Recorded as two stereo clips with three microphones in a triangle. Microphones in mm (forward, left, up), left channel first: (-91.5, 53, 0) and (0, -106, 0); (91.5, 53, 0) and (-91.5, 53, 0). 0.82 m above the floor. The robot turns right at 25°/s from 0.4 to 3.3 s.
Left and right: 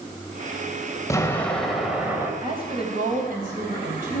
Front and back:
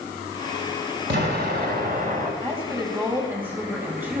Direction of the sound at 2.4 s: 125° right.